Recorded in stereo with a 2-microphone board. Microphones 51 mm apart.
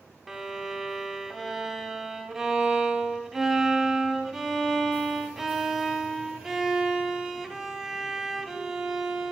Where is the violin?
5° right (ahead or behind), 1.0 m.